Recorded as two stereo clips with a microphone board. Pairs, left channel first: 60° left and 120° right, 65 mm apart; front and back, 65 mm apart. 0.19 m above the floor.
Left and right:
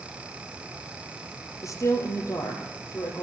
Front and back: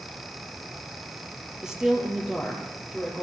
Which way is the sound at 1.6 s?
95° left.